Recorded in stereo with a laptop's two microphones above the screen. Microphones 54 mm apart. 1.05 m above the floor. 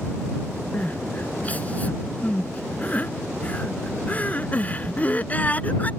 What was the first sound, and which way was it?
Crying, 30° left (ahead or behind).